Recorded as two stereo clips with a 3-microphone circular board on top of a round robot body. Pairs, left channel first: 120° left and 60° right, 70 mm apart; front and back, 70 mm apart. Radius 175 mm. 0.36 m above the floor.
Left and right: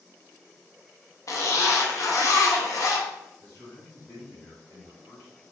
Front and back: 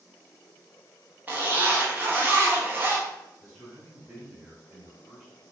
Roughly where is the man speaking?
Left.